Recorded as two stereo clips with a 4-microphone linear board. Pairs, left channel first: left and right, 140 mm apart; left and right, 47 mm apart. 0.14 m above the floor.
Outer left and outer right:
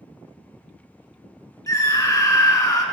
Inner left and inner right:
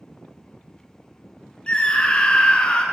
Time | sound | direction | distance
1.7 | a scream | 25° left (ahead or behind) | 1.3 m